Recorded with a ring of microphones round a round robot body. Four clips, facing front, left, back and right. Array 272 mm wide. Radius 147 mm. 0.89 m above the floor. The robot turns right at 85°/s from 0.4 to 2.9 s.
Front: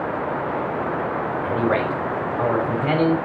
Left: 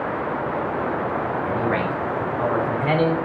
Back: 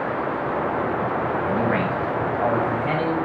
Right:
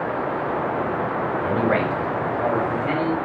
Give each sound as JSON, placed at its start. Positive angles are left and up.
{"t": 1.4, "sound": "a man speaking", "azimuth_deg": -75, "distance_m": 6.0}